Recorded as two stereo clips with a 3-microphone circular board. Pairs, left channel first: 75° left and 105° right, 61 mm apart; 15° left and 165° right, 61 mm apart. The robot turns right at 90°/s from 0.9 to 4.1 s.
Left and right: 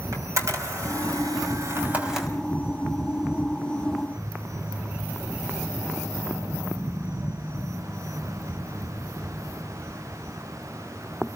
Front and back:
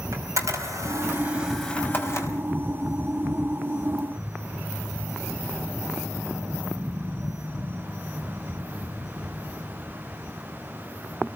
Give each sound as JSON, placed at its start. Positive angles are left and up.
{"t": 0.1, "sound": "a camera shutter", "azimuth_deg": -135, "distance_m": 4.5}